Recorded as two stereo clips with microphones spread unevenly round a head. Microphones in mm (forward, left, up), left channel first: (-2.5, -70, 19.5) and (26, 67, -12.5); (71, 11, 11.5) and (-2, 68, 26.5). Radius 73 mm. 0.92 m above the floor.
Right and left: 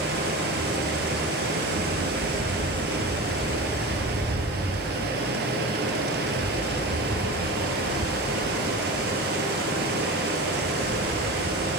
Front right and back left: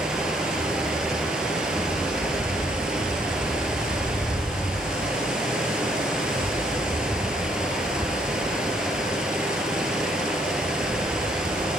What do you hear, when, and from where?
0.0 s running water: 60° left, 3.5 m